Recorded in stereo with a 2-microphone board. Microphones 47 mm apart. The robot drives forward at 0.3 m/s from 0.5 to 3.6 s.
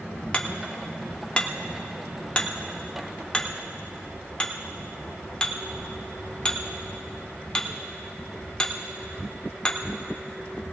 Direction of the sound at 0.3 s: 25° left (ahead or behind).